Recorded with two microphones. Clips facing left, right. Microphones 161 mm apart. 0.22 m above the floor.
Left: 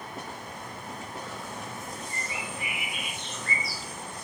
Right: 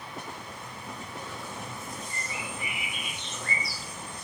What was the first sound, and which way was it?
A bird, 15° left (ahead or behind).